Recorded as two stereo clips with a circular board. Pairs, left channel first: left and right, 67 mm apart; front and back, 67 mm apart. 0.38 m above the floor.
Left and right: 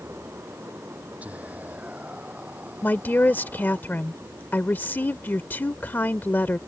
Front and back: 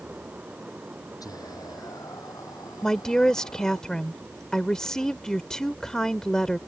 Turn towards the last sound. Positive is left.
turn(degrees=70)